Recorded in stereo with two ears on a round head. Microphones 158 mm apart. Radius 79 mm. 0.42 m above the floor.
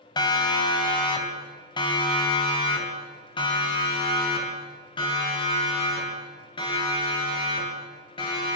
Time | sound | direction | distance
0.2 | a siren | 25° left (ahead or behind) | 3.5 m